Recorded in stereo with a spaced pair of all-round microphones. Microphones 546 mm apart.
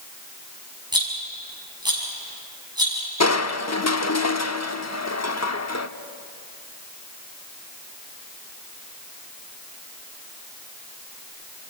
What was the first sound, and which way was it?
A rattle, 5° right (ahead or behind).